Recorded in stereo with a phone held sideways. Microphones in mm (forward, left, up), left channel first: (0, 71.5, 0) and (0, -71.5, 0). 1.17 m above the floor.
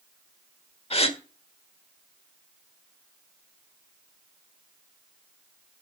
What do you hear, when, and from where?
0.9 s a gasp: 45° left (ahead or behind), 1.5 m